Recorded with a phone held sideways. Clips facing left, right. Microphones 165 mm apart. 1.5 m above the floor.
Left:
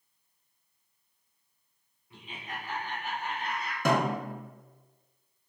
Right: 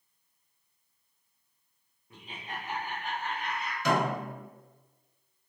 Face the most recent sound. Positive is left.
turn(degrees=50)  # may be behind; listen again after turning